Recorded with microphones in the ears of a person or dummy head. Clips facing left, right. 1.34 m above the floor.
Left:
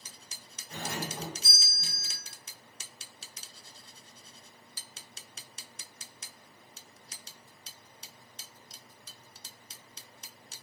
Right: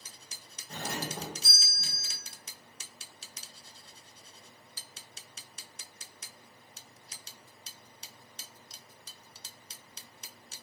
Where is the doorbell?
25° right (ahead or behind), 1.5 m.